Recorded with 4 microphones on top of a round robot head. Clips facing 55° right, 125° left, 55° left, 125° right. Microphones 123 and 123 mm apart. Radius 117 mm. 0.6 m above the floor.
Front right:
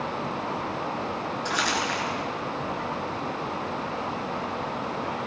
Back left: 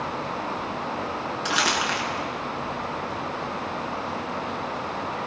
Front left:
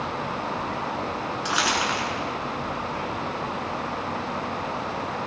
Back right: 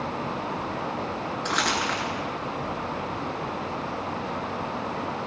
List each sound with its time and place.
1.4 s crumpling: 140° left, 9.5 m